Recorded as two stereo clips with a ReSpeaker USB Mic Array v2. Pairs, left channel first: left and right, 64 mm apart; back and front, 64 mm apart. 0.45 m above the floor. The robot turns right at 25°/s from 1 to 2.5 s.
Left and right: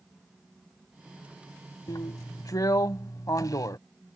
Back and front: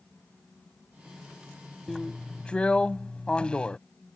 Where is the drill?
90° left; by 3.8 s 110° left.